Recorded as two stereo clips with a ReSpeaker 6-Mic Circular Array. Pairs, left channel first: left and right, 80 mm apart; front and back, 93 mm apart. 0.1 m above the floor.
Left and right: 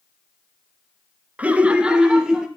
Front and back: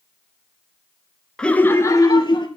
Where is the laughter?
70° right, 1.1 m; by 2.5 s 5° right, 1.7 m.